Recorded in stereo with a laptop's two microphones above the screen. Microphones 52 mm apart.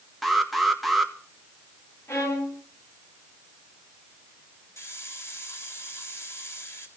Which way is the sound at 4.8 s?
60° left (ahead or behind).